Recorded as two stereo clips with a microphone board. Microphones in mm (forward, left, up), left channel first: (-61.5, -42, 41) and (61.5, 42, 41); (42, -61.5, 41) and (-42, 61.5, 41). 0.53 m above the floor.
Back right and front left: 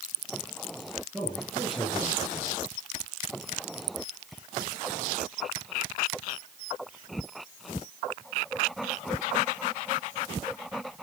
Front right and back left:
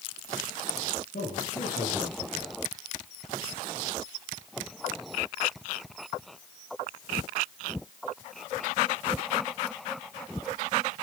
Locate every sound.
1.1 s a man speaking: 55° right, 8.5 m